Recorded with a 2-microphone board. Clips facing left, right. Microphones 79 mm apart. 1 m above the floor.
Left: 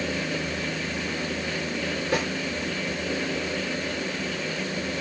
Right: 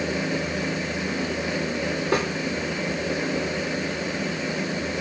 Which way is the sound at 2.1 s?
45° right (ahead or behind).